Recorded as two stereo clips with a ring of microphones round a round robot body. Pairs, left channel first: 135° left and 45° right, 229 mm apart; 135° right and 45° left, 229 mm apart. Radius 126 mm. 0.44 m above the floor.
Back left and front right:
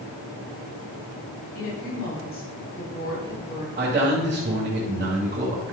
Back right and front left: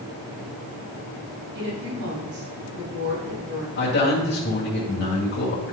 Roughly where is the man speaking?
Right.